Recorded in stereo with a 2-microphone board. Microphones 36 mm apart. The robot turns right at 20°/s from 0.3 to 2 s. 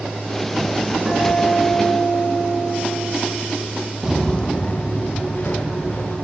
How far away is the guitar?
About 4.5 m.